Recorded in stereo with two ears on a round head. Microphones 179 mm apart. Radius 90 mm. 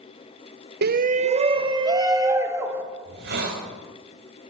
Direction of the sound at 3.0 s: 60° right (ahead or behind).